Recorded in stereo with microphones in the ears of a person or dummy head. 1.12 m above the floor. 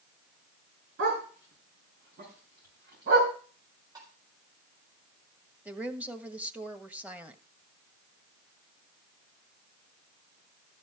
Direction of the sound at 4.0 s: 15° right (ahead or behind).